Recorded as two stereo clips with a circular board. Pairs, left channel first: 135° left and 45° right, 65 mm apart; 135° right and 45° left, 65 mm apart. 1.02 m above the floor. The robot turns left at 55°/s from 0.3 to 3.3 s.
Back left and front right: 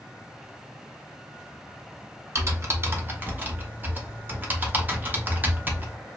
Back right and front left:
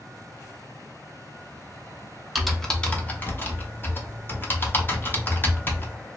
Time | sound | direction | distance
2.4 | typing on a keyboard | 40° right | 0.6 m